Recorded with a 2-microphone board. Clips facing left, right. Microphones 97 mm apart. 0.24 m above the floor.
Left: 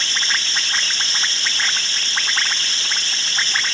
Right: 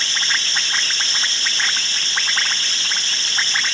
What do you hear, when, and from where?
Only background noise.